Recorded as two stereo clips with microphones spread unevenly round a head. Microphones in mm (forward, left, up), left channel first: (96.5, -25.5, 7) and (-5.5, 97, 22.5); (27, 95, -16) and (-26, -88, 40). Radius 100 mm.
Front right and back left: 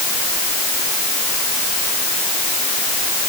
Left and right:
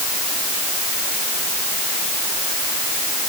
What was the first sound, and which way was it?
Only background noise.